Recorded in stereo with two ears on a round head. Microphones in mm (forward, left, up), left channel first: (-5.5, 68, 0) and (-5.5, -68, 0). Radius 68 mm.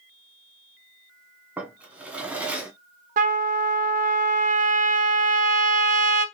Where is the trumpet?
55° right (ahead or behind), 0.5 m.